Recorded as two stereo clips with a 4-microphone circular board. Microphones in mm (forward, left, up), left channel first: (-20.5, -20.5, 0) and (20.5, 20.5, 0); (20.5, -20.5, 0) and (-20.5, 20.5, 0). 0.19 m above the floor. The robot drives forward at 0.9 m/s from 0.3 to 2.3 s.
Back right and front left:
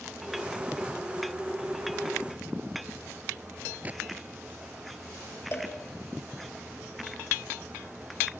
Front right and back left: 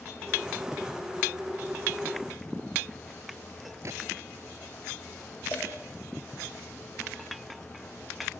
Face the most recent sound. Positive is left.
turn(degrees=-95)